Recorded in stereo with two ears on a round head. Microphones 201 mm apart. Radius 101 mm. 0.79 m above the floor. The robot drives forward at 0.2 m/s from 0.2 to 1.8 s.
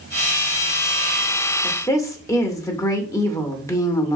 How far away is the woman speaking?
About 0.6 m.